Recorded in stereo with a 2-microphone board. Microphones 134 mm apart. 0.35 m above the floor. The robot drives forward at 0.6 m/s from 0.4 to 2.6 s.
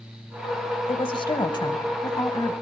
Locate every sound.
0.9 s a woman speaking: 45° left (ahead or behind), 1.3 m; by 2.5 s 25° left (ahead or behind), 2.0 m